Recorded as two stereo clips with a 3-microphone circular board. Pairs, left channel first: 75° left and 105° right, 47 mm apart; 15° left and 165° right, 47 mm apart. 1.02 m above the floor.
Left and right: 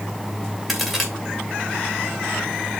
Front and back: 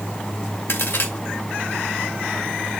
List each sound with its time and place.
0.7 s a crack: 15° right, 2.5 m